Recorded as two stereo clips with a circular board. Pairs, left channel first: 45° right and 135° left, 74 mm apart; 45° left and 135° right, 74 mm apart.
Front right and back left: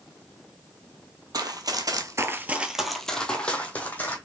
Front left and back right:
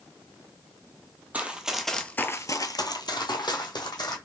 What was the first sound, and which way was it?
Running footsteps, 155° left.